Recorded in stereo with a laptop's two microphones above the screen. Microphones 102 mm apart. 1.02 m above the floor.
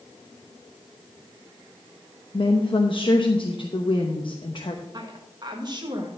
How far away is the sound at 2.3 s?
About 0.9 m.